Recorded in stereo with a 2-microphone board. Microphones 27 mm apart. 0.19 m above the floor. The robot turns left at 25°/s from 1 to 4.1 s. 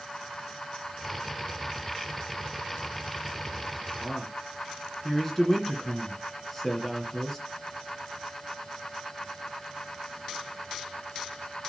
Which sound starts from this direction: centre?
A man speaking, at 4.0 s.